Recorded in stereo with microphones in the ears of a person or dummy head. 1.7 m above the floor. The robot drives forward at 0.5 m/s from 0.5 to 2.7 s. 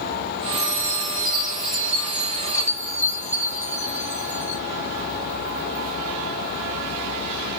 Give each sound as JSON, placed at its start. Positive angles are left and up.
{"t": 0.5, "sound": "a chime", "side_deg": 30, "distance_m": 2.0}